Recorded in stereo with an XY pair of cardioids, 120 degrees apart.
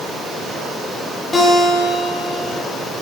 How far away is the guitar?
About 4 m.